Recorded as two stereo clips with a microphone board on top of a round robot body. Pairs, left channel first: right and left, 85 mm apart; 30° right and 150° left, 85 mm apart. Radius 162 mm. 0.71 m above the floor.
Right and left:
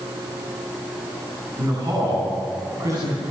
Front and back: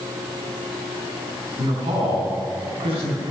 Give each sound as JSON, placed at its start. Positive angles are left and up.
{"t": 1.6, "sound": "a man speaking", "azimuth_deg": 140, "distance_m": 9.0}